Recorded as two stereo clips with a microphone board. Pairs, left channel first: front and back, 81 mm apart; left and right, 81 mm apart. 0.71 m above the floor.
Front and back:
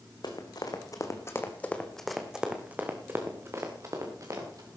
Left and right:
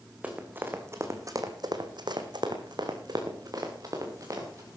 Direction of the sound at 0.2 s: 20° right.